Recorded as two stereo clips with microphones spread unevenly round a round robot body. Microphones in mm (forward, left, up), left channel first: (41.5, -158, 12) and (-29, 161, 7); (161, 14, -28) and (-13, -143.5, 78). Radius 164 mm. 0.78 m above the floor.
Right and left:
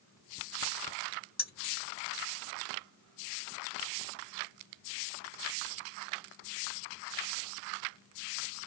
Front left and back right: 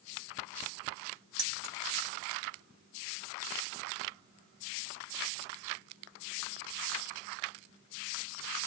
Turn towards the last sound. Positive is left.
turn(degrees=-150)